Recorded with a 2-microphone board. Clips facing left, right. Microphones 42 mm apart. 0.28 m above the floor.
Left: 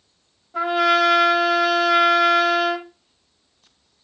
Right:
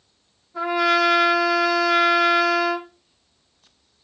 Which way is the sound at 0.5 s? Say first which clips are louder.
Left 2 dB; 75° left (ahead or behind).